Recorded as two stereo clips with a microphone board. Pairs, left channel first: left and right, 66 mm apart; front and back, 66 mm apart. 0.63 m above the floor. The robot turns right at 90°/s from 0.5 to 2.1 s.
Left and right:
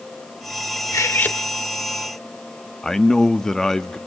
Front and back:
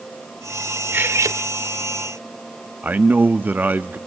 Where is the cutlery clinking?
120° left, 1.1 m; by 1.4 s 160° left, 1.1 m.